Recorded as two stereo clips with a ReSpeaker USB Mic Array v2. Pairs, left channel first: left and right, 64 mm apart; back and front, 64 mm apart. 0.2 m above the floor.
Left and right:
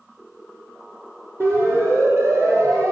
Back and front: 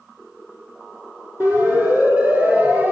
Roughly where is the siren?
Ahead right.